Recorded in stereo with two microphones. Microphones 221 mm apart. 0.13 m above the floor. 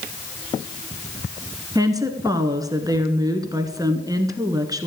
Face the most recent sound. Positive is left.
turn(degrees=-15)  # may be behind; listen again after turning